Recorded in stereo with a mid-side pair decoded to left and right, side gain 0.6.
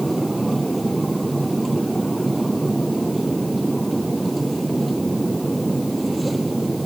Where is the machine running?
5° right.